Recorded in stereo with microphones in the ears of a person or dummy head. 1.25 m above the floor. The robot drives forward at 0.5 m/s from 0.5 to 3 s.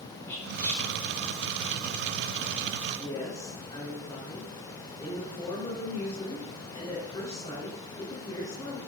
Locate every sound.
0.3 s whispering: 10° left (ahead or behind), 3 m
2.9 s a woman speaking: 25° left (ahead or behind), 4 m